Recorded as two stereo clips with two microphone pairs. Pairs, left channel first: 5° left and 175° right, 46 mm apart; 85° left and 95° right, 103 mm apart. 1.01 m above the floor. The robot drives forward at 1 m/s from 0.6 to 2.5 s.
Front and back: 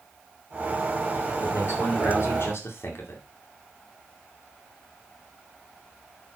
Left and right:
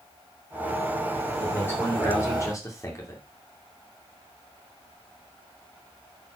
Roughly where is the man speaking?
Ahead.